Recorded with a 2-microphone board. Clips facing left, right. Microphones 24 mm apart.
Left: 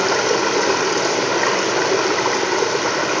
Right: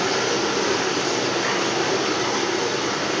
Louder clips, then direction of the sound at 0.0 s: Left 4 dB; 70° left (ahead or behind).